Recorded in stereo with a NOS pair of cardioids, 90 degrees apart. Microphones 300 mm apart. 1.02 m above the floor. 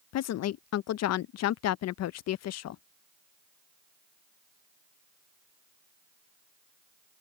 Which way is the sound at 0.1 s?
60° left.